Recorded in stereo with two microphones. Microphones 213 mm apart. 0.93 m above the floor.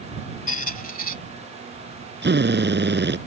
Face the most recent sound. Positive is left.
turn(degrees=-55)  # may be behind; listen again after turning